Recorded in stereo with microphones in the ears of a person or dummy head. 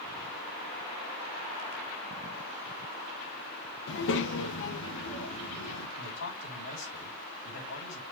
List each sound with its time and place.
3.9 s a child speaking: 65° left (ahead or behind), 0.9 m
6.0 s a man speaking: 85° left, 5.5 m